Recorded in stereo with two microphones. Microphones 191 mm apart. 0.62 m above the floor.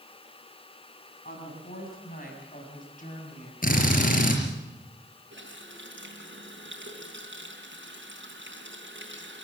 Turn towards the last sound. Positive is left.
turn(degrees=-80)